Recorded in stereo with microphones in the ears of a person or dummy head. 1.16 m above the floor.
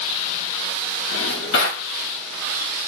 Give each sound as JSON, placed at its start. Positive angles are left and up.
{"t": 1.1, "sound": "a drawer", "side_deg": 70, "distance_m": 1.7}